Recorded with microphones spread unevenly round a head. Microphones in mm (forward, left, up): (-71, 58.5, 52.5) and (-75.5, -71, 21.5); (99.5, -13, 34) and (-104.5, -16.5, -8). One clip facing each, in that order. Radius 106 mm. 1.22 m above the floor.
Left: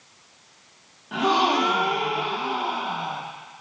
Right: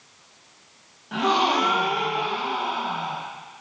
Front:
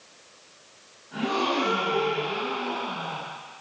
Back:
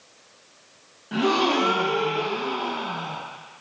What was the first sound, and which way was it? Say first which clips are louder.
A gasp: left 1 dB, back 5 dB; 175° left.